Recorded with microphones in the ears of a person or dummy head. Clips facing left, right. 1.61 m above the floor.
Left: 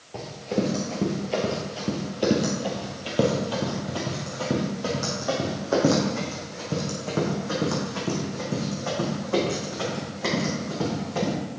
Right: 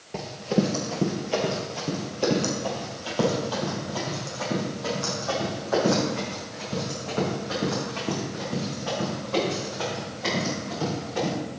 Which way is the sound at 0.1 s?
20° right (ahead or behind).